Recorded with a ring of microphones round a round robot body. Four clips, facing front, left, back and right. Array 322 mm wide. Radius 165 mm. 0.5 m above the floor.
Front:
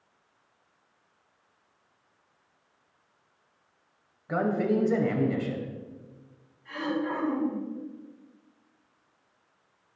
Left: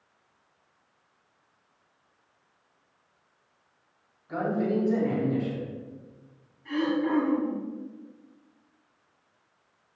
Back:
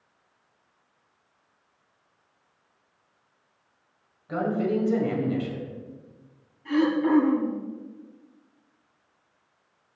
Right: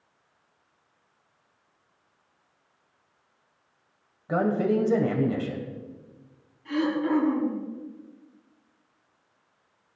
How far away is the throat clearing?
About 6 m.